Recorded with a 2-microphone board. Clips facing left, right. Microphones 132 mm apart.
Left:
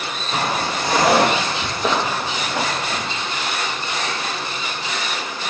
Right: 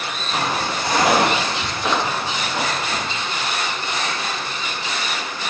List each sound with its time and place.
0.3 s footsteps: 50° left (ahead or behind), 3 m; by 3.1 s 75° left (ahead or behind), 5.5 m